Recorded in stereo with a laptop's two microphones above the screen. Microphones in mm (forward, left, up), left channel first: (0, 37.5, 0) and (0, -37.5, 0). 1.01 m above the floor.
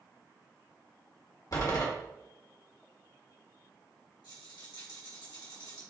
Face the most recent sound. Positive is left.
turn(degrees=85)